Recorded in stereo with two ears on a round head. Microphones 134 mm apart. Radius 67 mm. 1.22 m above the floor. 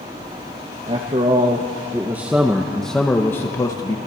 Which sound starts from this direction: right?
A man speaking, at 0.9 s.